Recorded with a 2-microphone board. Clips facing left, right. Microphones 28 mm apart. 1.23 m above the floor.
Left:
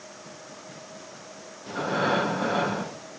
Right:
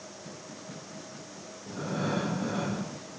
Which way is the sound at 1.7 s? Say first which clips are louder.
Left 7 dB; 65° left (ahead or behind).